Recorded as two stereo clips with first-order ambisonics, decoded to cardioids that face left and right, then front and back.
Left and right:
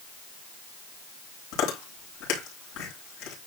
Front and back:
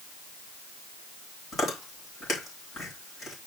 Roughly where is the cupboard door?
No cupboard door in this recording.